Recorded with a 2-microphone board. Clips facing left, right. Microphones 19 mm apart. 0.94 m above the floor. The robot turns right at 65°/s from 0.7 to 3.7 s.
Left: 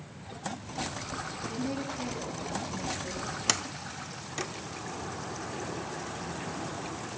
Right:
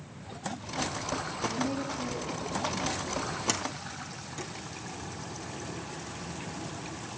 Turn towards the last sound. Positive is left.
turn(degrees=40)  # may be behind; listen again after turning